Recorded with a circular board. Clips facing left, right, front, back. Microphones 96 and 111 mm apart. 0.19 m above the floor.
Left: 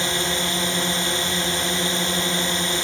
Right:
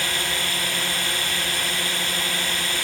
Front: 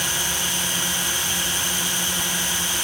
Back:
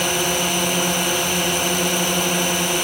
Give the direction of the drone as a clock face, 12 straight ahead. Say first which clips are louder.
Left 3 dB, back 9 dB; 7 o'clock.